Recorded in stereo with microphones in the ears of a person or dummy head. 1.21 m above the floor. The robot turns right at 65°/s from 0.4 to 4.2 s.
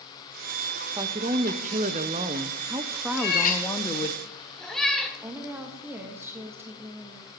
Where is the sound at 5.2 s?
10° right (ahead or behind), 1.7 m.